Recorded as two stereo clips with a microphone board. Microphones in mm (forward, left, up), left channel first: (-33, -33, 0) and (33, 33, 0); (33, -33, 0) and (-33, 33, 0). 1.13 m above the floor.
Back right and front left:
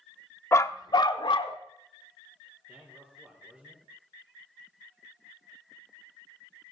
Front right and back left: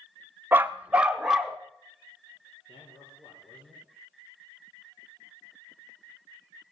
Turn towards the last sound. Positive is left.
turn(degrees=-25)